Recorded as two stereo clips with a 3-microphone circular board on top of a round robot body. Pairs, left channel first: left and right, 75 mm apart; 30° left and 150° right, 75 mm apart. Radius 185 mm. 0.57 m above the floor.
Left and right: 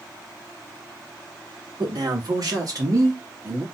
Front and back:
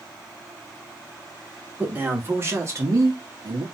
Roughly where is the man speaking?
Right.